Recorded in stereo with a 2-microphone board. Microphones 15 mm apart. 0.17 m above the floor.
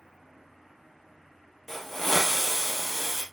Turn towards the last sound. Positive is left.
turn(degrees=20)  # may be behind; listen again after turning